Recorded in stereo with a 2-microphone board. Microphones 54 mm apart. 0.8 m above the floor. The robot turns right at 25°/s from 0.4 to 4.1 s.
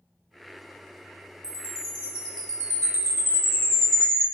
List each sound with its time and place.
1.4 s a chime: 105° right, 1.1 m; by 4.2 s 40° right, 1.1 m